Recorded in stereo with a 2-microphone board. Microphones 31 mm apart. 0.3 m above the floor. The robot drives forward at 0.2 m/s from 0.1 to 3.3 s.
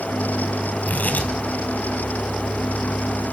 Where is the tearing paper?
65° left (ahead or behind), 4 m.